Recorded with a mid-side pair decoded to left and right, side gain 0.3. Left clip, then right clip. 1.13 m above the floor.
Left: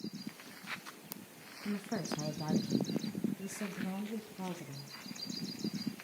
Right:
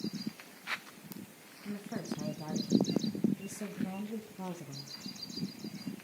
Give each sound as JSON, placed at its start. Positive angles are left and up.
{"t": 1.6, "sound": "a woman speaking", "azimuth_deg": 55, "distance_m": 1.5}